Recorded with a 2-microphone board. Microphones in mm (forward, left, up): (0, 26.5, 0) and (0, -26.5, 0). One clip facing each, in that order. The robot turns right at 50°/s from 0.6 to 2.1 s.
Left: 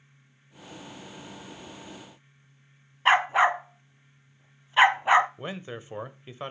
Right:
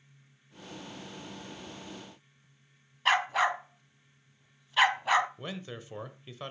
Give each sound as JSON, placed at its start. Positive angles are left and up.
{"t": 3.0, "sound": "a dog barking", "side_deg": 25, "distance_m": 0.7}
{"t": 5.4, "sound": "a man speaking", "side_deg": 25, "distance_m": 0.9}